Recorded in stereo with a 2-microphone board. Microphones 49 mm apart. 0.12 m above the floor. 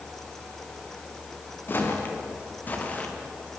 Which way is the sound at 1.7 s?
40° left (ahead or behind).